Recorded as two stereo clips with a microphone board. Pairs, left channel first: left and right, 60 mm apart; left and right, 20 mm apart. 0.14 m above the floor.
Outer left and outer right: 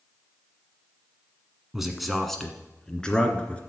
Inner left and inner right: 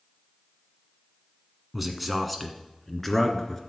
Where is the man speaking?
5° right (ahead or behind), 1.1 m; by 3.6 s 20° left (ahead or behind), 1.6 m.